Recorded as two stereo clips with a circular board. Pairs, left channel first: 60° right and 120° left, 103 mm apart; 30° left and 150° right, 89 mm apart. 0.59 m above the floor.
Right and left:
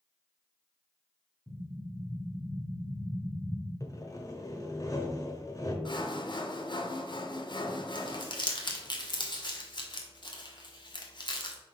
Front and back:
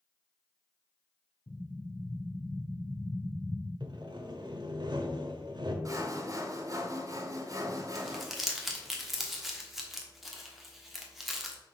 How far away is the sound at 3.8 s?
About 0.9 m.